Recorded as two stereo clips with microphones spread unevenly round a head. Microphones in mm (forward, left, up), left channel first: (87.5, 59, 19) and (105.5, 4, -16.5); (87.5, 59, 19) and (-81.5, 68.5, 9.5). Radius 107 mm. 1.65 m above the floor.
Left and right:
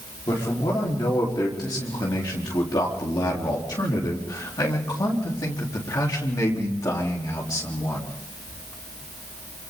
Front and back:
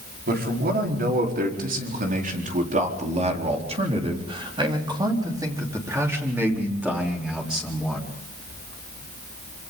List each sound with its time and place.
0.3 s a man speaking: 150° left, 4.5 m; by 8.1 s 85° left, 4.5 m